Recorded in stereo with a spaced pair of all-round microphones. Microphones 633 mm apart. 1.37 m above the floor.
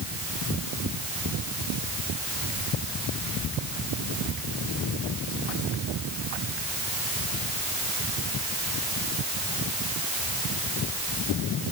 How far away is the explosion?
I don't hear an explosion.